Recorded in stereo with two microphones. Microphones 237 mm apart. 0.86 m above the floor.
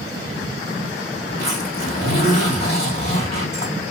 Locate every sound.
1.3 s a zipper: 40° left (ahead or behind), 2 m